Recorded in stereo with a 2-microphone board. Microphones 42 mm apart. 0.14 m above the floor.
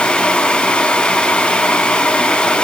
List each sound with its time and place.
Only background noise.